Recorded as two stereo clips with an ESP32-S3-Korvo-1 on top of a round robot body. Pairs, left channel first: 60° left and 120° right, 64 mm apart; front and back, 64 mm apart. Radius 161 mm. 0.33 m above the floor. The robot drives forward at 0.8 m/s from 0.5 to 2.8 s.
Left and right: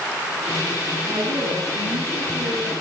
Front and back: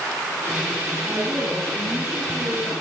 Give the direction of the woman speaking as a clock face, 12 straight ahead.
4 o'clock.